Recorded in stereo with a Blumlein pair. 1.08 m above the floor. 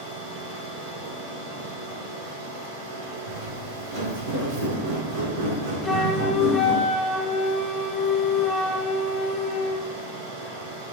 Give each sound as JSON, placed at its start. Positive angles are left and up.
{"t": 0.0, "sound": "a machine running", "azimuth_deg": -45, "distance_m": 1.9}
{"t": 3.3, "sound": "footsteps", "azimuth_deg": -50, "distance_m": 3.5}
{"t": 5.8, "sound": "a flute", "azimuth_deg": 5, "distance_m": 1.7}